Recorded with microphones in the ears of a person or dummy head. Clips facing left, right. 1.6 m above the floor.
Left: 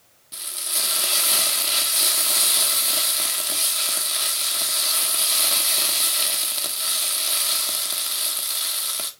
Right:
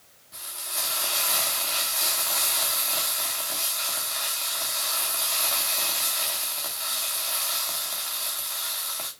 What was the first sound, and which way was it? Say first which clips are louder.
Frying: left 2 dB; 40° left (ahead or behind).